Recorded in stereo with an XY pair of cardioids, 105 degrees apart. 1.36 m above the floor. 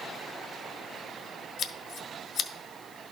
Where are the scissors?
65° left, 0.5 m.